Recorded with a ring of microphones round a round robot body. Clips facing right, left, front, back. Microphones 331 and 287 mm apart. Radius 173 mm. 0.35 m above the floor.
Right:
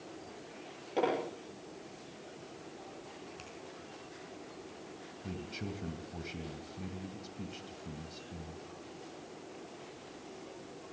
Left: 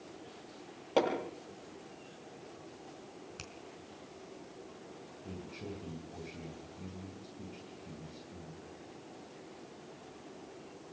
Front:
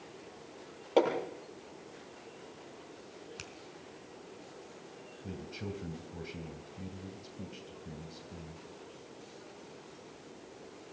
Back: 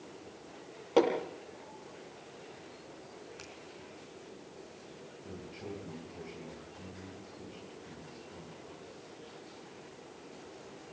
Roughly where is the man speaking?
Ahead right.